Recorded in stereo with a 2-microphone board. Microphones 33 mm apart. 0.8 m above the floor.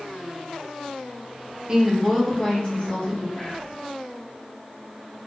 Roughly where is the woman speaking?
Right.